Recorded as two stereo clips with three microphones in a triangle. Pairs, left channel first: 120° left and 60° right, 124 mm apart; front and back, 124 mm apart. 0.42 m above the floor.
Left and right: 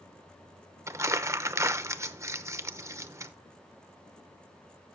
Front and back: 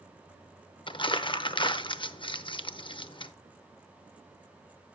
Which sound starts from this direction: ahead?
Crumpling, at 0.9 s.